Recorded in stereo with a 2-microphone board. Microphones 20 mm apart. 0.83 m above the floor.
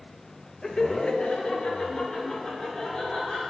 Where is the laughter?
20° left (ahead or behind), 0.7 m; by 3.5 s 45° left (ahead or behind), 3.5 m.